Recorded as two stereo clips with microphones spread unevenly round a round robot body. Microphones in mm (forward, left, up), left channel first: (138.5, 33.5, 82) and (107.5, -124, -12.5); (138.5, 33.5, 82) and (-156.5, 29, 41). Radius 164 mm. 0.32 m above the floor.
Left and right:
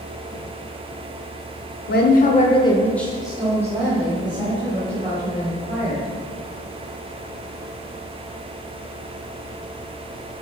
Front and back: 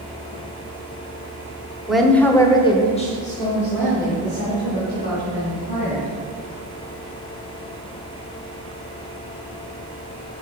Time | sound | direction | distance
1.9 | a woman speaking | 110° left | 1.0 m